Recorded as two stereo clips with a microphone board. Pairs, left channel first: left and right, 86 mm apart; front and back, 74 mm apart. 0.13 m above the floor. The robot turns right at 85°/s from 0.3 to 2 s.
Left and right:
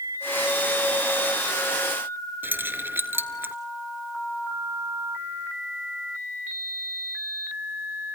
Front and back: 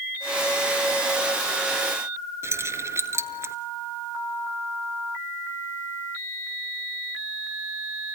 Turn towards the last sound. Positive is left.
turn(degrees=-145)